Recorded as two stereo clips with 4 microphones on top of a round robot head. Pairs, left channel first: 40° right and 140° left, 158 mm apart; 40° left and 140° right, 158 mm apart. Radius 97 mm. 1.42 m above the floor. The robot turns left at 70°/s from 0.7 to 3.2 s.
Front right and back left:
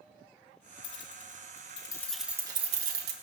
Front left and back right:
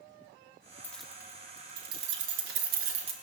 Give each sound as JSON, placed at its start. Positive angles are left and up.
{"t": 0.8, "sound": "keys jangling", "azimuth_deg": -35, "distance_m": 1.9}